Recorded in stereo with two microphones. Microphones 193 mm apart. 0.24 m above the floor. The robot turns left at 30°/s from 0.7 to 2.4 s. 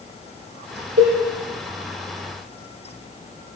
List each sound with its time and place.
1.0 s a cowbell: 75° right (ahead or behind), 6 m; by 1.1 s 70° right (ahead or behind), 6 m